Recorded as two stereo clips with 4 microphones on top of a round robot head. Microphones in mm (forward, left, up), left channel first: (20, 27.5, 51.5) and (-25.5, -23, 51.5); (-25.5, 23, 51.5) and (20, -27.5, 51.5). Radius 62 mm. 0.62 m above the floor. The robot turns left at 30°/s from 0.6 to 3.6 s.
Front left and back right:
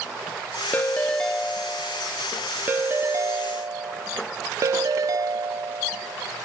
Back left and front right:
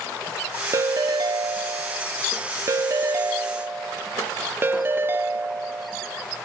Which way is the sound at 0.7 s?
15° right.